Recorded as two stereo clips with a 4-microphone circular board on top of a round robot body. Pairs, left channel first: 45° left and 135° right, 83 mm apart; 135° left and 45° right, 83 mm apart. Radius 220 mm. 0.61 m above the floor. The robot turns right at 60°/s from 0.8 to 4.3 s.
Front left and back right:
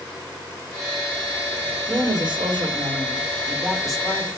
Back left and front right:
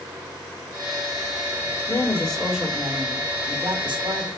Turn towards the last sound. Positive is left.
turn(degrees=-20)